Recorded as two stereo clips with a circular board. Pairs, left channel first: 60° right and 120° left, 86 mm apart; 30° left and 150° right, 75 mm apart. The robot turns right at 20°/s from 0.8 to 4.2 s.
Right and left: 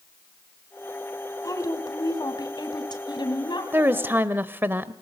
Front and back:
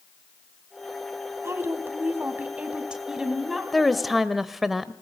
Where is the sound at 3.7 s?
115° left, 1.0 m; by 4.9 s 125° left, 1.0 m.